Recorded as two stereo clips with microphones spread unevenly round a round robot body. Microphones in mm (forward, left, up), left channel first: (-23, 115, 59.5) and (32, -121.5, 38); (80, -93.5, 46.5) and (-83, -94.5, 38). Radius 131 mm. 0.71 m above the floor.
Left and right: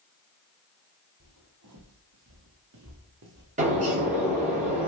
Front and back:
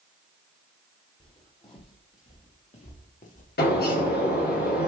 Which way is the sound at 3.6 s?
20° right.